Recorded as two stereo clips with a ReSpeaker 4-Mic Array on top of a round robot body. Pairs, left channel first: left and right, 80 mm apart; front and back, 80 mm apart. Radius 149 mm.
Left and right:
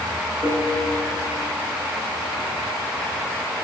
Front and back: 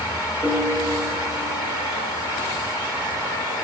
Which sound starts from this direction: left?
A piano, at 0.4 s.